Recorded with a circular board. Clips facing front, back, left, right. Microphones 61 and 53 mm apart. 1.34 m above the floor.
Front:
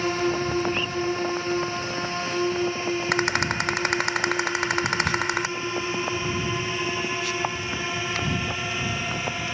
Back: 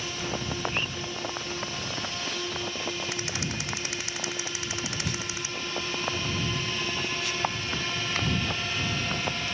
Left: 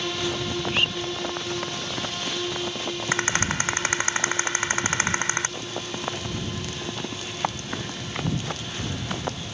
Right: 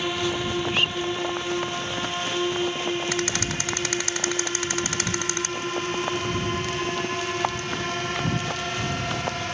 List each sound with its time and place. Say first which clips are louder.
0.0 s a drone: front 9 dB, right 2 dB; 20° right; by 9.5 s 70° right
3.1 s a rattle: front 10 dB, left 2 dB; 30° left